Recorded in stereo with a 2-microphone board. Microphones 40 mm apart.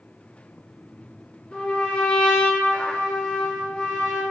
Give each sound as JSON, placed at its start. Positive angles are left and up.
{"t": 1.5, "sound": "a trumpet", "side_deg": 30, "distance_m": 4.0}